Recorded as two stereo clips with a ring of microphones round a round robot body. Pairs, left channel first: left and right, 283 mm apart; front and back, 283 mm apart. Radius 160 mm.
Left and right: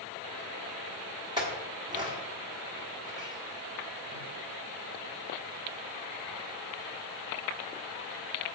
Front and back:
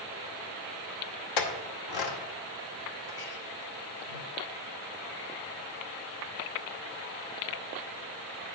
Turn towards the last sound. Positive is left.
turn(degrees=-15)